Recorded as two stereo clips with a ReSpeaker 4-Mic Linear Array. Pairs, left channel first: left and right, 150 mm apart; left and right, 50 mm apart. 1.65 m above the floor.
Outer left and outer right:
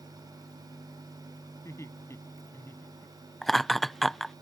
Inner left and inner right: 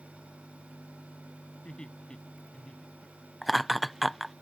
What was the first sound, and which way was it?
Laughter, 20° left (ahead or behind).